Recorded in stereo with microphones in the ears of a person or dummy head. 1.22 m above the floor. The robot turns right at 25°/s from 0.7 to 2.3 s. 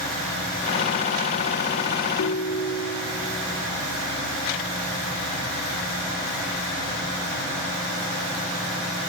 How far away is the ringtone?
About 1.7 m.